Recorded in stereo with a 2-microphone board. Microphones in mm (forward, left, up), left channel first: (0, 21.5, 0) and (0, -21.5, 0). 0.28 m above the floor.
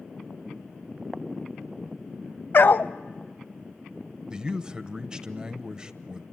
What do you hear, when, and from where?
2.5 s a dog barking: 50° left (ahead or behind), 0.5 m
4.3 s a man speaking: 20° right (ahead or behind), 1.0 m